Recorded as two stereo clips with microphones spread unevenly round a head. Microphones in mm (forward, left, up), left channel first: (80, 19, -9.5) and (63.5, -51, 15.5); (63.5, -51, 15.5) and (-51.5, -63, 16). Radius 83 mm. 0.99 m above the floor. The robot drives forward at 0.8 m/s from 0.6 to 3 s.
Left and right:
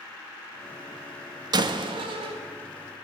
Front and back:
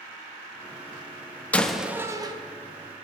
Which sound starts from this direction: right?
A door slam, at 1.5 s.